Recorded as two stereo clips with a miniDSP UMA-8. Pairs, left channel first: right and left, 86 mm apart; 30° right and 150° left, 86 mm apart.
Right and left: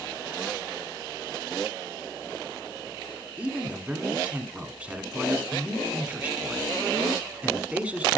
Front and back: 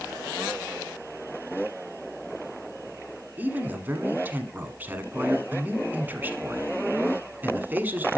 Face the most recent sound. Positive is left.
turn(degrees=135)